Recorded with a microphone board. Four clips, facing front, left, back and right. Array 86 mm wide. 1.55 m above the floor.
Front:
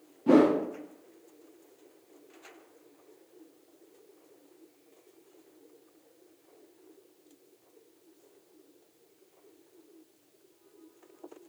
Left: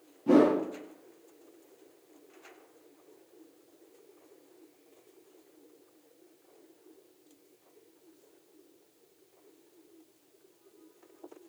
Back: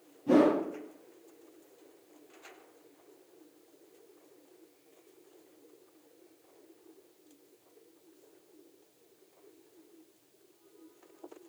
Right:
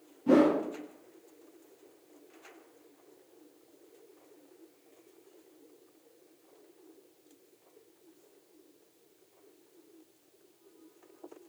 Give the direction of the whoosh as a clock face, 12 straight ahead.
12 o'clock.